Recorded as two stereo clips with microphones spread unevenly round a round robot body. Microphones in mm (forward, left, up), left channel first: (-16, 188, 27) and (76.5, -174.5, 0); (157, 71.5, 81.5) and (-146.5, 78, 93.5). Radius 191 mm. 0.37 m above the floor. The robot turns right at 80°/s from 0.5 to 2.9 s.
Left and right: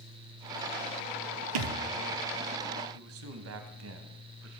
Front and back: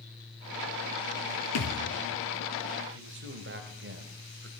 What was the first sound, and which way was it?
A thud, 50° right.